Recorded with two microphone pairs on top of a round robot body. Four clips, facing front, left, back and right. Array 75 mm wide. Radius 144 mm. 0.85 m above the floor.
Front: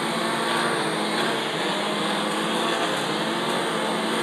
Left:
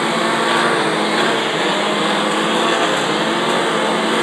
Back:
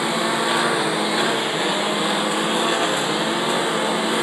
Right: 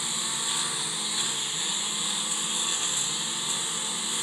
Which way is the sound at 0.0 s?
100° left.